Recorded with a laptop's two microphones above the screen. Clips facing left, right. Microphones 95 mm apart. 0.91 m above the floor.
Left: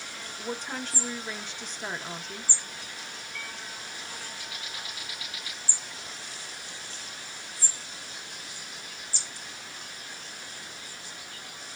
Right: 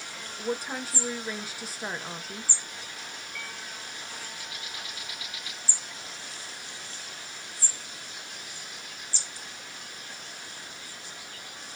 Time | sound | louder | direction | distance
0.4 | a woman speaking | right 3 dB | 5° right (ahead or behind) | 0.5 m